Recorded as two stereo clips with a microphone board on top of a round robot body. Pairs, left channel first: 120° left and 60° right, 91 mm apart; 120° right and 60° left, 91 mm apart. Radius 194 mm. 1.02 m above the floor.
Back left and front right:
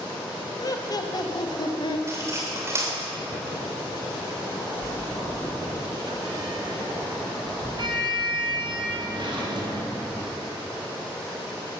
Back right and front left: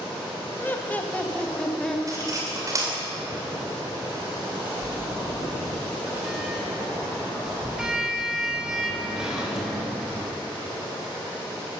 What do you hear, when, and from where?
0.6 s laughter: 170° left, 1.7 m; by 2.0 s 155° left, 2.5 m
2.1 s cutlery clinking: 5° left, 3 m
4.8 s a sliding door: 25° right, 3.5 m